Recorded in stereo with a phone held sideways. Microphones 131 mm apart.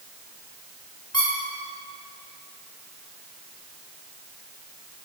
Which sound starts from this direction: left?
A squeak, at 1.1 s.